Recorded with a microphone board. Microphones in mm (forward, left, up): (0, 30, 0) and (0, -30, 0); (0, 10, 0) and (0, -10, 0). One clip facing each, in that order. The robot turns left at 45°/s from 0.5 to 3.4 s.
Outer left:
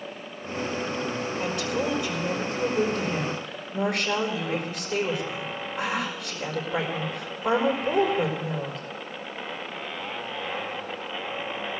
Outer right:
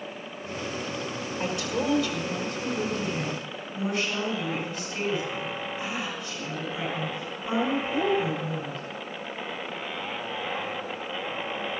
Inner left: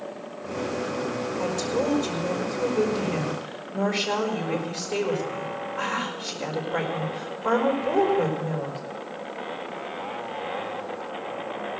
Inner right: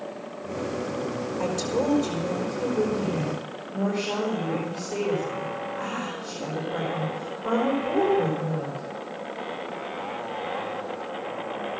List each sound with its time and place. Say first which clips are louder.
1.4 s a woman speaking: outer right 1 dB, inner right 1 dB; 155° right, 4.5 m; by 8.8 s 115° left, 4.5 m